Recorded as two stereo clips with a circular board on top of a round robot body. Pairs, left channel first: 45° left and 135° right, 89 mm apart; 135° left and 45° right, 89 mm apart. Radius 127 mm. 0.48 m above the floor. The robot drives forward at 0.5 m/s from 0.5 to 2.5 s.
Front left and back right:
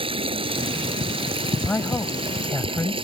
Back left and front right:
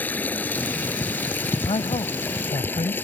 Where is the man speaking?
115° left; by 3.0 s 120° left.